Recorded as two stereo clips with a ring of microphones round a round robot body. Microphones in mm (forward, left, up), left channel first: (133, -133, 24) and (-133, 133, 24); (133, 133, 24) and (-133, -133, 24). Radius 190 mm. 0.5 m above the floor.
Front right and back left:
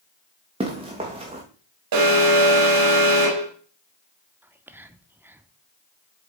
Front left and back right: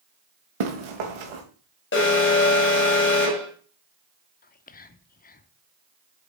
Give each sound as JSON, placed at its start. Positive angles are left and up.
{"t": 0.6, "sound": "running footsteps", "azimuth_deg": -150, "distance_m": 2.5}
{"t": 1.9, "sound": "an alarm", "azimuth_deg": 105, "distance_m": 3.0}
{"t": 4.4, "sound": "whispering", "azimuth_deg": 60, "distance_m": 0.7}